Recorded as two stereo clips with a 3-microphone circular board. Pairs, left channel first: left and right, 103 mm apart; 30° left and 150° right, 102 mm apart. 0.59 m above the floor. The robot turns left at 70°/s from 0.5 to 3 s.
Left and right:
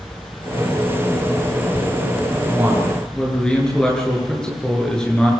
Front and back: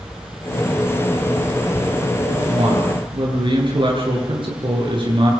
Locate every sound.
2.5 s a man speaking: 150° right, 9.5 m; by 5.3 s 175° left, 9.5 m